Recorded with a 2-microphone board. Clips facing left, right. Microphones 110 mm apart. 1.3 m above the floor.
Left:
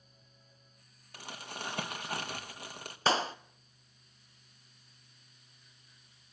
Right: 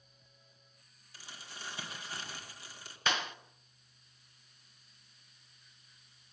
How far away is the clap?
About 0.7 m.